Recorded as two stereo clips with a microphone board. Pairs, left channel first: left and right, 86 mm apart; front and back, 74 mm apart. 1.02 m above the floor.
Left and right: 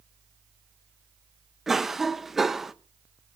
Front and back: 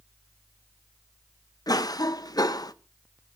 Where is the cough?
5° right, 0.9 m.